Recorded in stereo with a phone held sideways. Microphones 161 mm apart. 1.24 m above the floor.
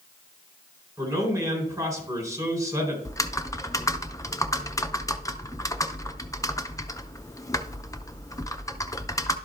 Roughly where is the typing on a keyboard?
Left.